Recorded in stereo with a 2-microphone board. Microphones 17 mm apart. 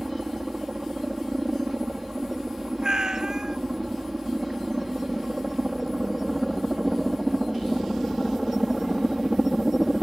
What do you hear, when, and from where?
0.0 s a helicopter: 20° right (ahead or behind)
2.8 s a cat meowing: 45° right (ahead or behind)